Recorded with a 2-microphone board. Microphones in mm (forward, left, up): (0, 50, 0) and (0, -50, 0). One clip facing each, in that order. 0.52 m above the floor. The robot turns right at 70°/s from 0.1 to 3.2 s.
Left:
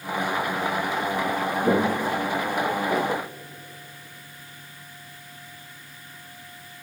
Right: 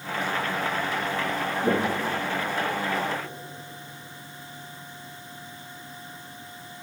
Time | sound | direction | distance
1.6 | footsteps | centre (ahead or behind) | 1.5 m